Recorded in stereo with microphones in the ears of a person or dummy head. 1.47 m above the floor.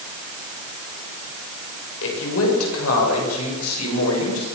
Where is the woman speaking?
75° left (ahead or behind), 6.5 m; by 4.5 s 90° left, 7.5 m.